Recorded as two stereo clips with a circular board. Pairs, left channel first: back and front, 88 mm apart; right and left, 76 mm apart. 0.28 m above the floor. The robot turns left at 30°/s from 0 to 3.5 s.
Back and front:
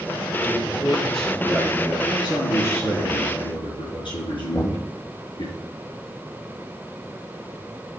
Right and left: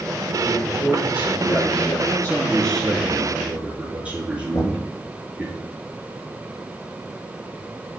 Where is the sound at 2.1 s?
150° right, 4 m; by 5.5 s 165° left, 4 m.